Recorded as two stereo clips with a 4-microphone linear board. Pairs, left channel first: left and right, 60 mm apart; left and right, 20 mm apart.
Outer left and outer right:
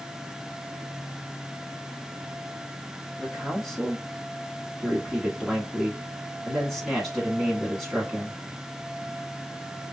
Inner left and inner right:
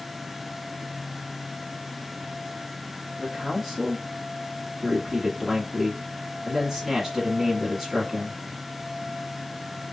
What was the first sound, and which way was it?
A man speaking, 5° left (ahead or behind).